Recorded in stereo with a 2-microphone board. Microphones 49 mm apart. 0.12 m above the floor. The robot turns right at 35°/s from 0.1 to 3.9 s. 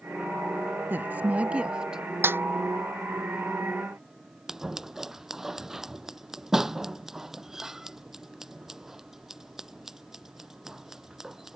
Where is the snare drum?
55° right (ahead or behind); by 2.4 s 50° right (ahead or behind).